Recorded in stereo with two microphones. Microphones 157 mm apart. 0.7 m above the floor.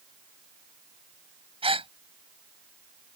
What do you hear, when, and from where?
1.6 s a gasp: 35° right (ahead or behind)